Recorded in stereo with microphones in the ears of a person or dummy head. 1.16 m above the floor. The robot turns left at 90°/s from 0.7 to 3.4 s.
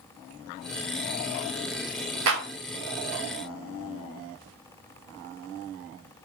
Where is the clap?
85° right, 2.5 m; by 2.4 s 80° right, 2.5 m.